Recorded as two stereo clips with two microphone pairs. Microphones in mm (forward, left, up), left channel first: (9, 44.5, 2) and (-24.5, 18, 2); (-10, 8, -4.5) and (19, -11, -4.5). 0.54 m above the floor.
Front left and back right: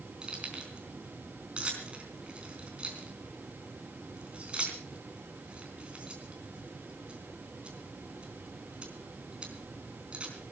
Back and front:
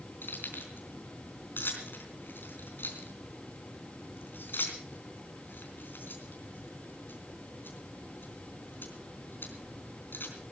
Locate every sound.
0.2 s keys jangling: 155° left, 4 m